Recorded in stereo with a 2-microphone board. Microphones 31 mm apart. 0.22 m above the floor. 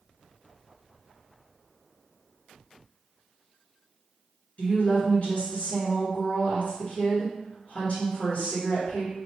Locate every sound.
4.6 s a woman speaking: 45° left (ahead or behind), 2.5 m